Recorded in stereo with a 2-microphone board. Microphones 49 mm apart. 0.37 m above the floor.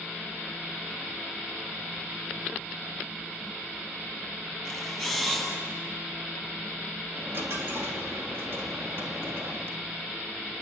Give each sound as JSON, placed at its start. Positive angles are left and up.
{"t": 4.7, "sound": "a camera shutter", "side_deg": -10, "distance_m": 9.0}
{"t": 7.1, "sound": "a dropped coin", "side_deg": -45, "distance_m": 3.0}